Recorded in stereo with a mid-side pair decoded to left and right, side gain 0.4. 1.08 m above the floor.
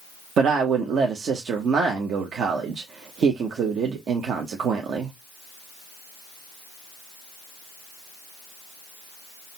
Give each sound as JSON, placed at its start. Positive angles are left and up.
{"t": 0.4, "sound": "a woman speaking", "azimuth_deg": -65, "distance_m": 0.9}